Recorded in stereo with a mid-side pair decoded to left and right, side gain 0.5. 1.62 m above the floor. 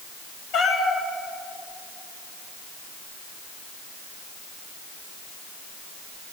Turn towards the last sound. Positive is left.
turn(degrees=70)